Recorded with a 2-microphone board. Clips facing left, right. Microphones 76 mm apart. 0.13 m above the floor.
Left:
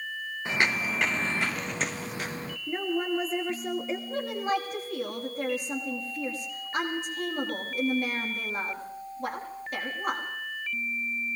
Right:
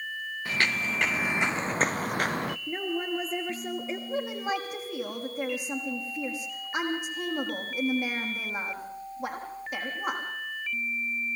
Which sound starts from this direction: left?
Footsteps, at 0.5 s.